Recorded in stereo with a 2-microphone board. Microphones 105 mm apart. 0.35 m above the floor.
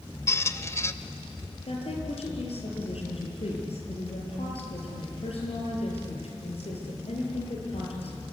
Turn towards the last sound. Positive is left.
turn(degrees=75)  # may be behind; listen again after turning